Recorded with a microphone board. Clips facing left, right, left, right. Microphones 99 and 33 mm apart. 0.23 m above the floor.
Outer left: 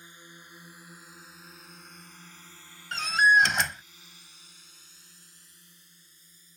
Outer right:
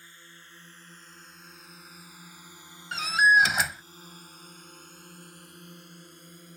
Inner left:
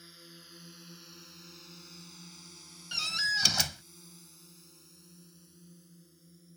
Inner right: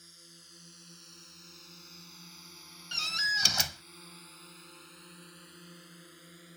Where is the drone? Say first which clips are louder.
Outer left 2 dB, inner left 3 dB; 20° left (ahead or behind); by 6.6 s 65° right (ahead or behind).